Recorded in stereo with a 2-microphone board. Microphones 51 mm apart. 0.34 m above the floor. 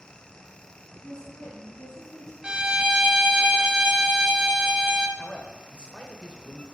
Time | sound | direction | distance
1.0 | a woman speaking | 15° left (ahead or behind) | 3 m
2.4 | a violin | 15° right (ahead or behind) | 0.5 m
5.2 | a man speaking | 20° left (ahead or behind) | 0.9 m